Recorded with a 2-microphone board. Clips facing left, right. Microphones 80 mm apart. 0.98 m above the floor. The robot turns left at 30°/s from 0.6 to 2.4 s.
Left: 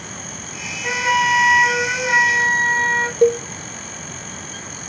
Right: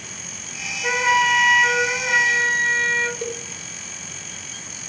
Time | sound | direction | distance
0.8 | a flute | 165° right | 1.4 m
3.2 | a cowbell | 50° left (ahead or behind) | 1.0 m